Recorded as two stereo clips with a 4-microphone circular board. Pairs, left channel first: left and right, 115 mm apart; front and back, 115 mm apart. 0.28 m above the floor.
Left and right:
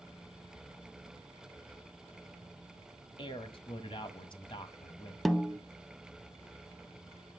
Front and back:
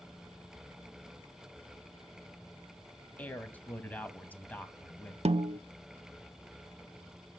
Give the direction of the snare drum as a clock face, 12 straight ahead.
6 o'clock.